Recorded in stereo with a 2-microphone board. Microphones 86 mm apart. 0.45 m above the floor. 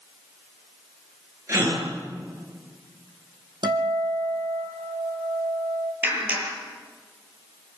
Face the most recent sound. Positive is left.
turn(degrees=-20)  # may be behind; listen again after turning